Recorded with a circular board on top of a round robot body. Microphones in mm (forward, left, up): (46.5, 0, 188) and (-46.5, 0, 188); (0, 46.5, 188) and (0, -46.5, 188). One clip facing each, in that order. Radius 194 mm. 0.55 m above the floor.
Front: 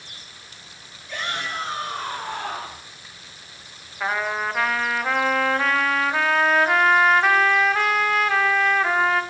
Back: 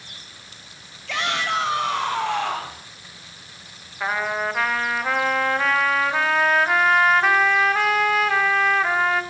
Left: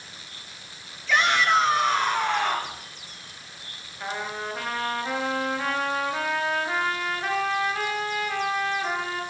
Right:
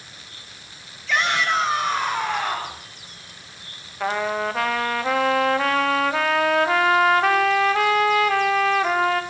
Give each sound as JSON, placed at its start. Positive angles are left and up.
{"t": 1.1, "sound": "a shout", "azimuth_deg": 180, "distance_m": 8.0}
{"t": 4.0, "sound": "a trumpet", "azimuth_deg": -90, "distance_m": 2.0}